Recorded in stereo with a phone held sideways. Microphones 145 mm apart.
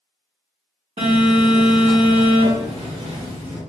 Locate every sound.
1.0 s a phone buzzing: 45° right (ahead or behind), 2.0 m